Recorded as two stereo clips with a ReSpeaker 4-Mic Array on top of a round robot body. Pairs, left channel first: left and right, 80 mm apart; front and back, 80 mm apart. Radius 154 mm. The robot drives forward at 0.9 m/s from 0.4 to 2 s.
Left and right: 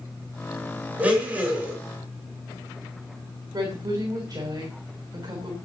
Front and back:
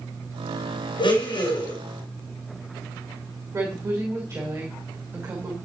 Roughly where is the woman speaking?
Behind right.